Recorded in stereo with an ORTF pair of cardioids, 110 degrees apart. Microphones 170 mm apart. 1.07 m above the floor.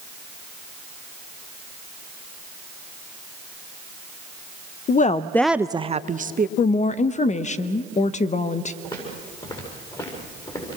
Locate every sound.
4.9 s a woman speaking: 55° left, 0.6 m; by 6.5 s 50° right, 1.1 m
6.6 s a woman speaking: 40° left, 1.0 m
8.8 s footsteps: 25° left, 8.5 m